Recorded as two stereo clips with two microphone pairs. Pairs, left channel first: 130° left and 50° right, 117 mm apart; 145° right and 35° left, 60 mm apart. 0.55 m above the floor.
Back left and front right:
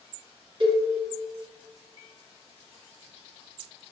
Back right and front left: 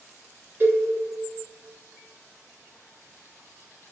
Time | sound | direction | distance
0.6 | a cowbell | 15° right | 0.7 m